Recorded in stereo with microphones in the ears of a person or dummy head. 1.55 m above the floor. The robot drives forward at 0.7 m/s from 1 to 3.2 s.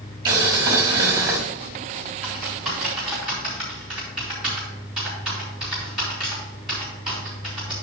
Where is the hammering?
I don't hear hammering.